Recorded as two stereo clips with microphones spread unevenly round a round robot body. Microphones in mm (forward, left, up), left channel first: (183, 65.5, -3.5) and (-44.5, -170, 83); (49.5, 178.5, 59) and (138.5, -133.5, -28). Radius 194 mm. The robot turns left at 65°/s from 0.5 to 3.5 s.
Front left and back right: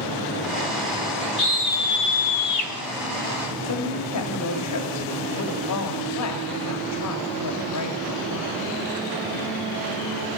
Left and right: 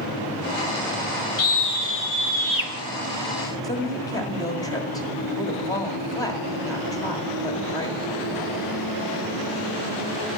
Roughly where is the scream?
Left.